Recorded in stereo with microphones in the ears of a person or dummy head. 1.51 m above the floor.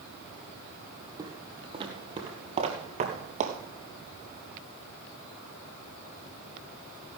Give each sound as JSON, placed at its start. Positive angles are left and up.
{"t": 1.2, "sound": "footsteps", "side_deg": -25, "distance_m": 3.0}